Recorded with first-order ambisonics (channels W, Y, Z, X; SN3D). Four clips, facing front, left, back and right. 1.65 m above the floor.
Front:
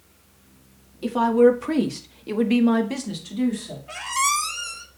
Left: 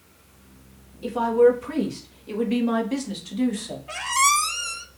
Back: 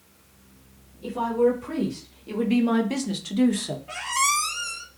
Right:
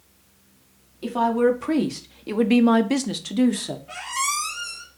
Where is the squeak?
85° left, 1.1 m.